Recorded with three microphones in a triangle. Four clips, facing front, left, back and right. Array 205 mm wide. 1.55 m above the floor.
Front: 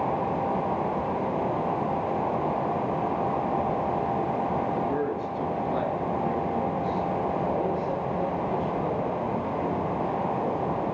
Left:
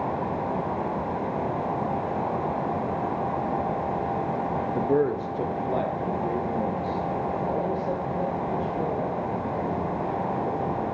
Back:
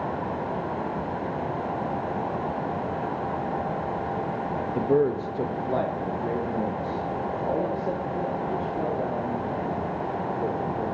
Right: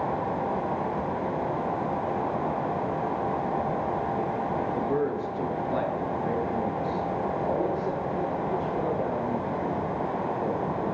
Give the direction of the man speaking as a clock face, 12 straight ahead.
8 o'clock.